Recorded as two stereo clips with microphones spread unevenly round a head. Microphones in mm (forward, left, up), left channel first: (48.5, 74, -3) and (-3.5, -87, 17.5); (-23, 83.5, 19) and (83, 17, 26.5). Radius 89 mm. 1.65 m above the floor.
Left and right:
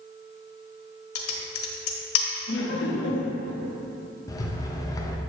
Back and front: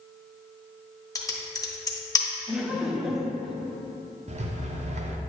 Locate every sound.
1.1 s typing on a keyboard: 85° left, 1.3 m
2.5 s laughter: 55° left, 1.2 m
4.3 s a rattle: straight ahead, 0.8 m